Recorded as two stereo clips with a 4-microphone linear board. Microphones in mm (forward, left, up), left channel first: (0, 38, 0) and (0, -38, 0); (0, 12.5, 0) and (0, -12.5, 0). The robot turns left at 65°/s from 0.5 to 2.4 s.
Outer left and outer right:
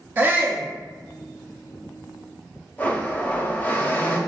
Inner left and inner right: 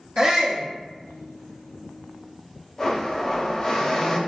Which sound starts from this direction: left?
A blender, at 2.8 s.